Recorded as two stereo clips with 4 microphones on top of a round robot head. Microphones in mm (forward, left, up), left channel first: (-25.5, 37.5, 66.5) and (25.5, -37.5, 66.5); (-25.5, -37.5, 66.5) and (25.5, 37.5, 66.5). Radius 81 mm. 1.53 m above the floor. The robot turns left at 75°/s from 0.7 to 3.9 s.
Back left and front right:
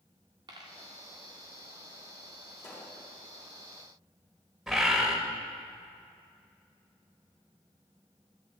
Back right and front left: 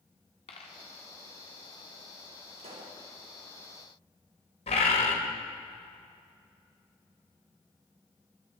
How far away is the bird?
About 1.9 m.